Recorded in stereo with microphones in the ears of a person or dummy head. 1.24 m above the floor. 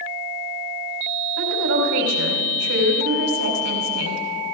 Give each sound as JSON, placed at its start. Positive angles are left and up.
{"t": 1.4, "sound": "a woman speaking", "side_deg": -70, "distance_m": 3.5}